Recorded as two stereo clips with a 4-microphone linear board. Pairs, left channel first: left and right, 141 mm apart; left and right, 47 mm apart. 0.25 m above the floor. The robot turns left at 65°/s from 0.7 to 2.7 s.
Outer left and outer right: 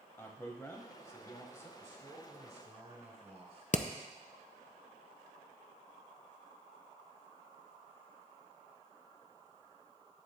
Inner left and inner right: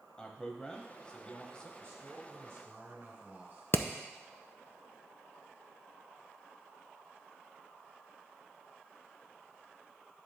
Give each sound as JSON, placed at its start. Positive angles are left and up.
{"t": 0.2, "sound": "a man speaking", "side_deg": 15, "distance_m": 0.9}
{"t": 1.8, "sound": "a man speaking", "azimuth_deg": -65, "distance_m": 2.5}
{"t": 3.7, "sound": "hammering", "side_deg": 55, "distance_m": 0.5}